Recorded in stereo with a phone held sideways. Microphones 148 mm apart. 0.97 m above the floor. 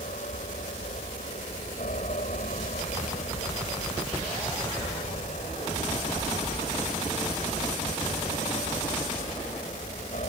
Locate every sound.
0.0 s an aircraft: 65° left (ahead or behind); by 10.3 s 60° left (ahead or behind)